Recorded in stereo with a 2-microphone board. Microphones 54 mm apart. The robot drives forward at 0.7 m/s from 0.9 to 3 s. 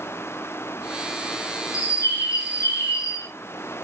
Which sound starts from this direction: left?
A bird, at 1.7 s.